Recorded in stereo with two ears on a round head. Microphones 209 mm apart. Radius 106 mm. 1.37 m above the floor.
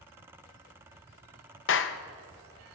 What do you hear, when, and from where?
1.7 s a clap: 55° left (ahead or behind), 0.7 m